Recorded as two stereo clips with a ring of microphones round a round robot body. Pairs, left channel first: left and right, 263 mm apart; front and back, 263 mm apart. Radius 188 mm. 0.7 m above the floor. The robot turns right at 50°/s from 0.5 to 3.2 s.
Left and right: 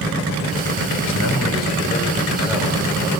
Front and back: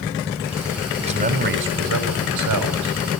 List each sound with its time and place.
1.0 s a man speaking: 110° left, 4.5 m; by 3.2 s 140° right, 4.5 m